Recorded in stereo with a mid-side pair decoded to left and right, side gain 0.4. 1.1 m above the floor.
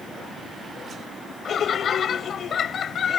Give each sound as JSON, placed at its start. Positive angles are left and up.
{"t": 1.4, "sound": "laughter", "azimuth_deg": 55}